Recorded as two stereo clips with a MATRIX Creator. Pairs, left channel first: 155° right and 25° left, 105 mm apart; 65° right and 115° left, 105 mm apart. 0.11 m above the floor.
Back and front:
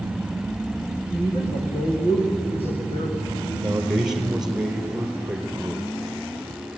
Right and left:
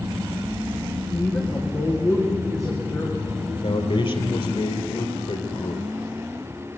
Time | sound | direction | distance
1.1 | a woman speaking | 130° right | 6 m
3.5 | a man speaking | 60° right | 3 m